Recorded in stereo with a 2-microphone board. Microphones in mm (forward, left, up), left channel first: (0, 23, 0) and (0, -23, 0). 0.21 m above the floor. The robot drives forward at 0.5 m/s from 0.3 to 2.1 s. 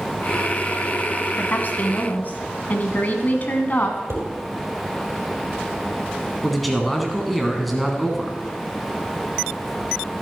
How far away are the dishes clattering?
About 4.5 m.